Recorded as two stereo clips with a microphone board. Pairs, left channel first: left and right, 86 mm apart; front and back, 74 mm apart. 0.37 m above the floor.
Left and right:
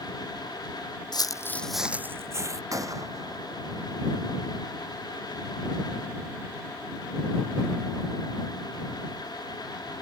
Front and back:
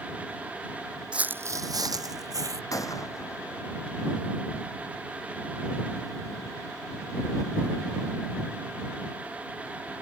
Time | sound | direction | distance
1.1 | footsteps | 105° left | ?
2.7 | a gunshot | 40° right | ?